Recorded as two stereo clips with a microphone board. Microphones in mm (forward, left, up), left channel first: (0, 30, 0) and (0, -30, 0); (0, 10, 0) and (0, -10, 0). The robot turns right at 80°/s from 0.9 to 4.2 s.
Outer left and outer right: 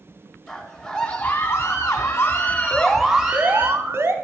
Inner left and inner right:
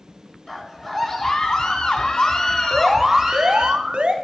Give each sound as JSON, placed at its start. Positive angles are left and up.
{"t": 0.5, "sound": "a scream", "azimuth_deg": 5, "distance_m": 2.0}
{"t": 2.7, "sound": "an alarm", "azimuth_deg": 160, "distance_m": 0.8}